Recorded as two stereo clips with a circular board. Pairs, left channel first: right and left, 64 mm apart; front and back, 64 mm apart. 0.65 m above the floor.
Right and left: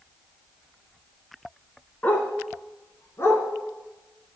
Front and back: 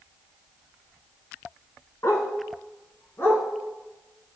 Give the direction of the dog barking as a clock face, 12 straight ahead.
1 o'clock.